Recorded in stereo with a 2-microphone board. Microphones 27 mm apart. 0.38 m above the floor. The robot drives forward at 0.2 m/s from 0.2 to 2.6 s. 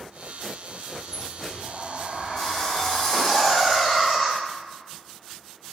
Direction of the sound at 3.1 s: 15° right (ahead or behind).